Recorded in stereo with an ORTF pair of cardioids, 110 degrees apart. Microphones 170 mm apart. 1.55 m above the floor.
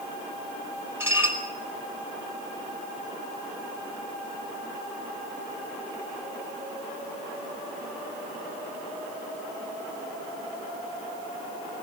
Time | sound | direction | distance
1.0 | dishes clattering | 15° right | 5 m